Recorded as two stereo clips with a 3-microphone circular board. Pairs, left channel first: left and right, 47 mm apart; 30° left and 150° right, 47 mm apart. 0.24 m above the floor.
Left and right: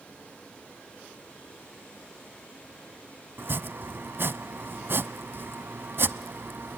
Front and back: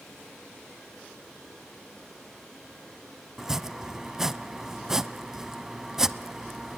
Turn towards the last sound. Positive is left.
turn(degrees=-75)